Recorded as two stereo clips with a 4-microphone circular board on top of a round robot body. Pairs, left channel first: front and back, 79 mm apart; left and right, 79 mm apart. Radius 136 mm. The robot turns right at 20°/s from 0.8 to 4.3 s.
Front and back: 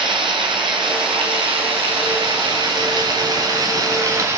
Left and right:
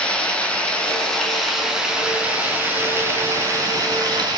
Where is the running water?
165° left, 4.5 m; by 4.4 s 125° right, 4.5 m.